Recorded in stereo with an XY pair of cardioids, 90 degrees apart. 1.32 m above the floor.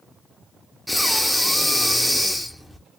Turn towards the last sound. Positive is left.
turn(degrees=5)